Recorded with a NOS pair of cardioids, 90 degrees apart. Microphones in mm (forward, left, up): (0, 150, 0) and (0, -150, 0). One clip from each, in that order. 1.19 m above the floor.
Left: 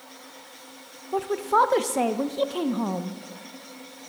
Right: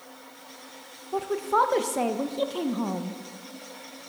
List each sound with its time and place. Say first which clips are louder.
1.1 s a woman speaking: left 2 dB; 10° left, 0.6 m